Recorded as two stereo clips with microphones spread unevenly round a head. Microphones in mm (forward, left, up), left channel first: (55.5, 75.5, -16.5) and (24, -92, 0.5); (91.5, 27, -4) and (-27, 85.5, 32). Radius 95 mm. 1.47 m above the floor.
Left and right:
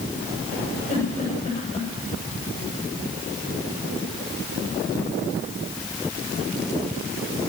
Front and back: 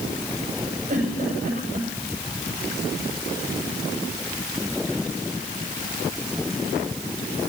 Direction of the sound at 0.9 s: 140° left.